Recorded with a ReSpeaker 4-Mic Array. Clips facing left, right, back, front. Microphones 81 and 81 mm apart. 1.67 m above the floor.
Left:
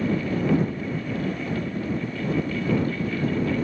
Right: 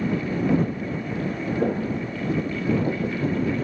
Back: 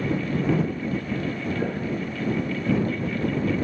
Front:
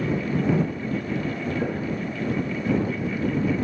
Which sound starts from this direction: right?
Footsteps, at 1.6 s.